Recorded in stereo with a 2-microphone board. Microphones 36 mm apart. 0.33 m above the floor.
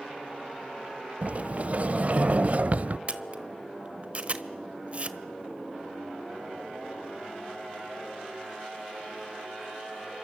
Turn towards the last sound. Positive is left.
turn(degrees=-40)  # may be behind; listen again after turning